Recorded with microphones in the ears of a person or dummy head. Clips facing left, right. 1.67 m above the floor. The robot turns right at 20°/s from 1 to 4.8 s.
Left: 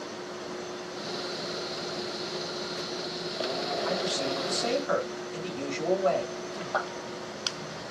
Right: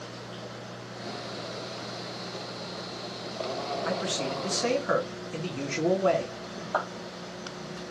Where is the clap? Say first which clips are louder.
Right 1 dB; 20° right (ahead or behind), 3.5 m.